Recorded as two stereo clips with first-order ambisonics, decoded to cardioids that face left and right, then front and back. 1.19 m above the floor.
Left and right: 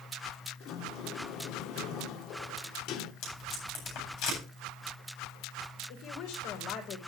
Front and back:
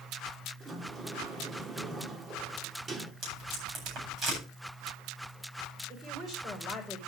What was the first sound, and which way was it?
A sliding door, 110° left.